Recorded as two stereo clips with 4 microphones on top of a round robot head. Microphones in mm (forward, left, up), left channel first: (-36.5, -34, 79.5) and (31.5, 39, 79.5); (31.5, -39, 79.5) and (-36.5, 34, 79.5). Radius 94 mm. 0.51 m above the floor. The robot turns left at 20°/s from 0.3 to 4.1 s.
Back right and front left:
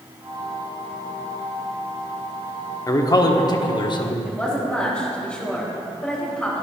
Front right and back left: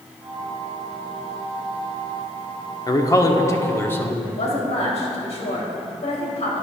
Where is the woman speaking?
55° right, 2.5 m.